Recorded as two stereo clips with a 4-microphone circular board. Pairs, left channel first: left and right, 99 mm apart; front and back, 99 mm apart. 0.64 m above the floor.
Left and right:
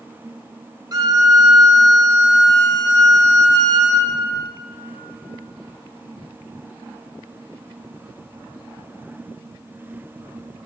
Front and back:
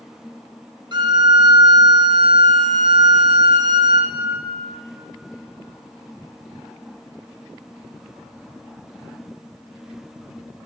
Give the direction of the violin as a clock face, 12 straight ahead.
5 o'clock.